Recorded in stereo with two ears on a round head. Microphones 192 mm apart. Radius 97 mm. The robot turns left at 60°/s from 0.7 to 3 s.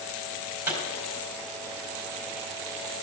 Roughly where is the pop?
Centre.